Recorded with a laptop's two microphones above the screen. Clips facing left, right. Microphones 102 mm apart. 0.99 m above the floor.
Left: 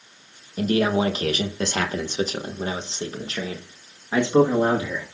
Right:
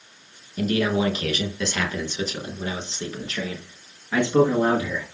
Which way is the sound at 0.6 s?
35° left (ahead or behind).